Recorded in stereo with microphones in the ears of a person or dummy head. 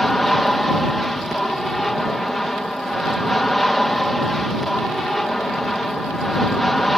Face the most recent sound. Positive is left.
turn(degrees=5)  # may be behind; listen again after turning